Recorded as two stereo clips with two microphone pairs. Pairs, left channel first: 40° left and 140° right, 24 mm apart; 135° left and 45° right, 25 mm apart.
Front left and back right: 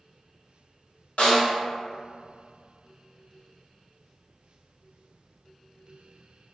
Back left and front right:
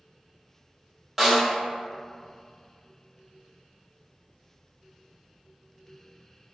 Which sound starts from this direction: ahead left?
A snare drum, at 1.2 s.